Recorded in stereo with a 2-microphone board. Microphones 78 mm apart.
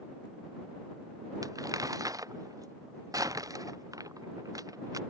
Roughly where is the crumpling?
Right.